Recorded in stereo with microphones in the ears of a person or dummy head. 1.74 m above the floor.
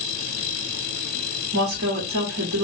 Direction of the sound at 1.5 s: 75° right (ahead or behind).